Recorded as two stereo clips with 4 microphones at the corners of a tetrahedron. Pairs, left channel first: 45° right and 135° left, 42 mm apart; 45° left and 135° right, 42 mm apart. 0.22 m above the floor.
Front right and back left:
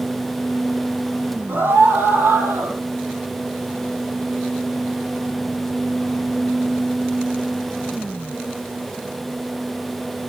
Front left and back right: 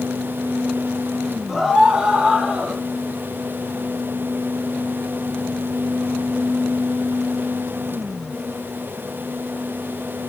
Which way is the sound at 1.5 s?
150° left.